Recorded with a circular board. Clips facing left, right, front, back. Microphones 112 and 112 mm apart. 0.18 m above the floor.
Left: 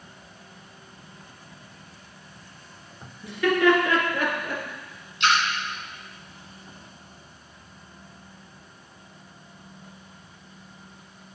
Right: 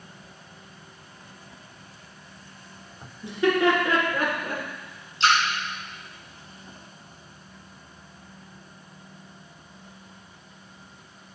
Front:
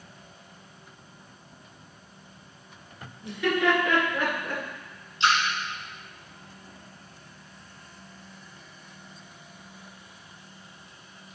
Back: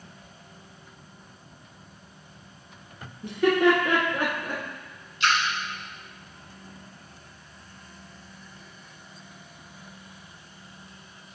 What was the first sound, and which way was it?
Laughter, 150° right.